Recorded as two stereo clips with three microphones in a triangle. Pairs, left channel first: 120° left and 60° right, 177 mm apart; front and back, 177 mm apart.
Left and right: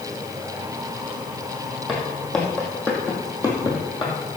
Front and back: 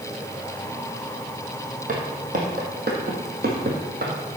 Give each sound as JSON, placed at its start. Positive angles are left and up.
{"t": 1.9, "sound": "footsteps", "azimuth_deg": -150, "distance_m": 2.5}